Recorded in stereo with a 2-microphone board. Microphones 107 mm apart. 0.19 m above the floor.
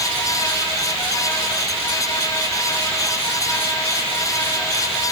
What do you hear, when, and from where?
Only background noise.